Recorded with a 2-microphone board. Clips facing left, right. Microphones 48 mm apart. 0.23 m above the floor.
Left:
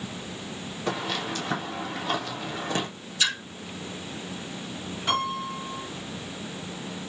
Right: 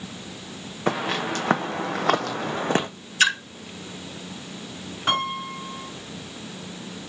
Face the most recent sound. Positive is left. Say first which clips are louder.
# right 2 dB
turn(degrees=-50)  # may be behind; listen again after turning